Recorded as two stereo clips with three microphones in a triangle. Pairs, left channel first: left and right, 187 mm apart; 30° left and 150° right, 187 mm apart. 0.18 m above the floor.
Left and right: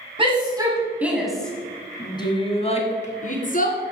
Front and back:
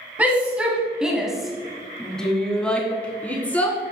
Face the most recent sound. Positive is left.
turn(degrees=110)